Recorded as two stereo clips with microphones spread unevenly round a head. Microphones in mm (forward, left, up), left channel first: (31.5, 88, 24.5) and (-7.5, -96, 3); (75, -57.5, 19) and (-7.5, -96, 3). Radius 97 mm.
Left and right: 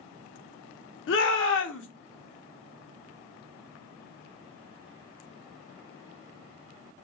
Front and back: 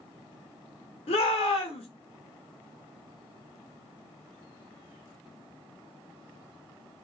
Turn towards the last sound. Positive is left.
turn(degrees=55)